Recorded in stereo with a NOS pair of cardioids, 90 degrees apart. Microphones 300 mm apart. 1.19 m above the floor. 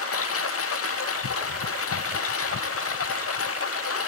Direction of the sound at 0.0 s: 50° left.